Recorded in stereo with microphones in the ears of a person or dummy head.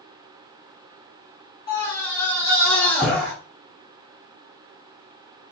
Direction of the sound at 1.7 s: 25° left (ahead or behind).